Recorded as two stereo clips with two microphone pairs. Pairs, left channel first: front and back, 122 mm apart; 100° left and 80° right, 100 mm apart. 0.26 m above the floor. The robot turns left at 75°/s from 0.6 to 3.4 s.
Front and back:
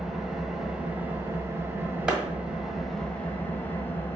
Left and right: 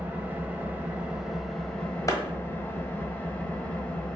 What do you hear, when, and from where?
0.0 s an engine running: 100° right, 0.8 m; by 4.2 s 50° left, 0.8 m
2.1 s a clap: 110° left, 1.4 m; by 2.2 s 100° left, 1.4 m